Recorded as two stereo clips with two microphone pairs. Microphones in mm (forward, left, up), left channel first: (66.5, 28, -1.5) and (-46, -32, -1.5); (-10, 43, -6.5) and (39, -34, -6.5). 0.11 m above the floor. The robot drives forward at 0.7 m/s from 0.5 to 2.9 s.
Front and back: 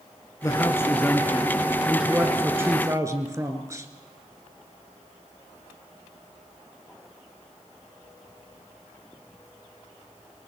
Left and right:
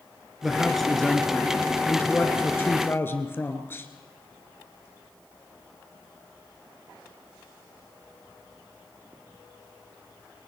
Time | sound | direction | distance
0.4 | a man speaking | 25° left | 1.7 m